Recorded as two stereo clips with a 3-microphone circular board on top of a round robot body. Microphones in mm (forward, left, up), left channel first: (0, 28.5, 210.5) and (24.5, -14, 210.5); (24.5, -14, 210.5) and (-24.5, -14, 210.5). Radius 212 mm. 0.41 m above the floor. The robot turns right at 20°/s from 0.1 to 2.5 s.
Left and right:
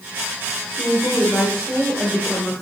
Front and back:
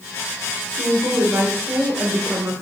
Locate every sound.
0.8 s a woman speaking: 175° left, 2.5 m; by 2.6 s 150° right, 2.5 m